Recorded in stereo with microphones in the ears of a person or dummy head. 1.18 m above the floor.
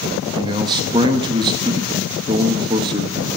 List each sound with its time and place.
0.4 s a man speaking: 20° right (ahead or behind), 1.1 m